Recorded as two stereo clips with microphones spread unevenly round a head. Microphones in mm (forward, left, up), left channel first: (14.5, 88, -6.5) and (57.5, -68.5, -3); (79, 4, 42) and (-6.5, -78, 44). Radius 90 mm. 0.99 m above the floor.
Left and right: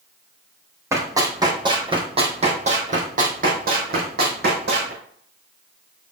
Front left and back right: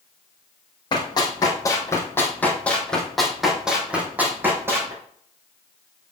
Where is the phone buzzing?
No phone buzzing in this recording.